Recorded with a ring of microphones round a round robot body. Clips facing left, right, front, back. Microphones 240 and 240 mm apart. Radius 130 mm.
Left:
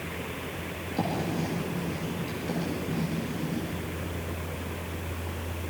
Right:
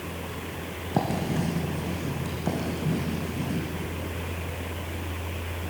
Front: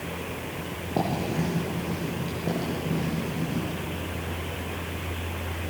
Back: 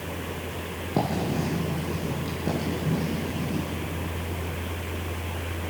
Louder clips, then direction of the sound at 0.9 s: Right 3 dB, back 1 dB; 100° right.